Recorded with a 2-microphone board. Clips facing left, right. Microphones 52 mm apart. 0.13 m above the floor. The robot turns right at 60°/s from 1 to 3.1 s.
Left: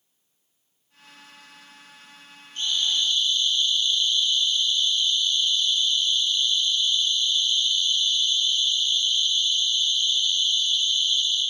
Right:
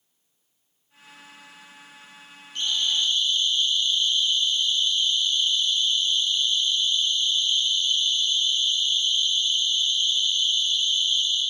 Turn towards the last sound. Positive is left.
turn(degrees=-30)  # may be behind; listen again after turning